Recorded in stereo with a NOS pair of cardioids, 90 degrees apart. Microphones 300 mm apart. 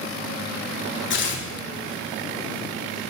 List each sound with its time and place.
1.1 s tearing paper: 40° left, 2.5 m